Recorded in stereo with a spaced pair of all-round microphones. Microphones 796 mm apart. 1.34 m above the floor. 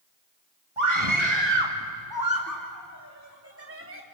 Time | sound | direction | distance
0.8 | a scream | 40° right (ahead or behind) | 2.5 m